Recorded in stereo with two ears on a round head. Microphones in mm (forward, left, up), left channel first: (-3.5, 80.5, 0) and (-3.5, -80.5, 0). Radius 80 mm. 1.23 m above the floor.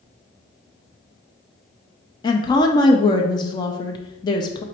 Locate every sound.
2.2 s a woman speaking: 25° left (ahead or behind), 0.6 m